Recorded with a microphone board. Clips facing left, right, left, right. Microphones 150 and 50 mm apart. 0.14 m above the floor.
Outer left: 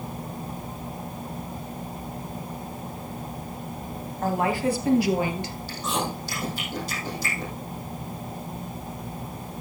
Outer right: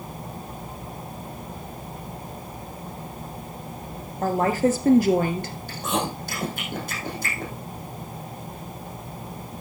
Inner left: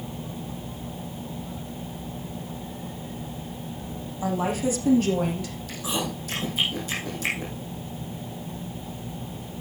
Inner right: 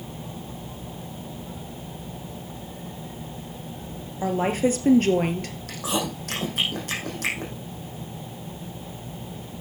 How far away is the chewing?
About 4.5 m.